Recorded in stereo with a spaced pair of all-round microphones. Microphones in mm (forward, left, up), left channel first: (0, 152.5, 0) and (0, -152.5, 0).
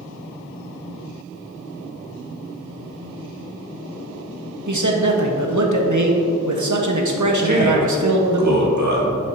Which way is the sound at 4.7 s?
70° right (ahead or behind).